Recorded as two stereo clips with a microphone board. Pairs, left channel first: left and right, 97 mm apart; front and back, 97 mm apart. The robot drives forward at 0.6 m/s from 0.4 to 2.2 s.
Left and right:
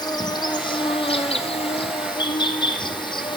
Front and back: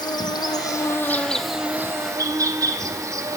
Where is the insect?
45° left, 0.9 m; by 3.4 s 125° left, 0.8 m.